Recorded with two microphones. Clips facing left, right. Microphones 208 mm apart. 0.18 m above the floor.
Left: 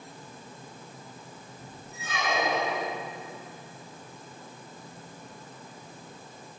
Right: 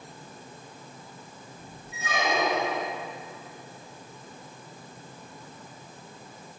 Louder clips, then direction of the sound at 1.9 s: Right 3 dB; 75° right (ahead or behind).